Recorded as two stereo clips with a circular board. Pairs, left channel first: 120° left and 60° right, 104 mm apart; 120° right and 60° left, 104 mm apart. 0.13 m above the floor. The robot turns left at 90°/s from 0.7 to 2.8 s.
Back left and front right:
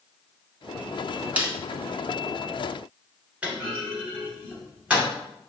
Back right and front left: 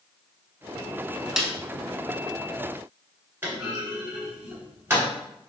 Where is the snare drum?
15° right, 0.8 m; by 1.5 s 30° right, 0.8 m.